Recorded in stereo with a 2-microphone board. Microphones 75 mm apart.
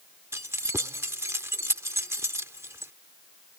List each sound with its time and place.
0.3 s keys jangling: 35° right (ahead or behind)